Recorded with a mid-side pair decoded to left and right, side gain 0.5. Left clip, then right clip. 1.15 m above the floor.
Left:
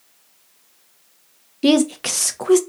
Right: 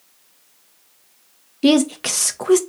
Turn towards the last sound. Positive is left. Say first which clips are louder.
# even
turn(degrees=0)